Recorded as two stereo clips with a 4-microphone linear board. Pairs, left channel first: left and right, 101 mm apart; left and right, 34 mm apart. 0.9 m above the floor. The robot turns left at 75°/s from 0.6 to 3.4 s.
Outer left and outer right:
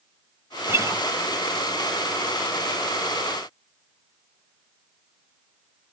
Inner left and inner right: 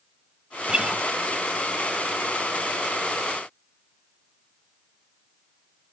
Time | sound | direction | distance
0.7 | a guitar | 25° right (ahead or behind) | 0.9 m